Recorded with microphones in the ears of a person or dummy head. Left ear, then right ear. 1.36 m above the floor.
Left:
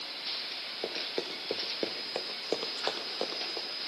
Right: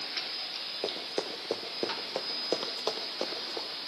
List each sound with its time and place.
0.8 s running footsteps: centre (ahead or behind), 1.6 m; by 3.7 s 5° left (ahead or behind), 3.5 m